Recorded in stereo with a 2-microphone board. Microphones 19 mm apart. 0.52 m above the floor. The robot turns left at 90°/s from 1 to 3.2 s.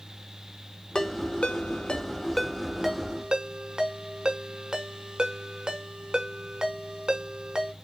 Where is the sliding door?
I don't hear a sliding door.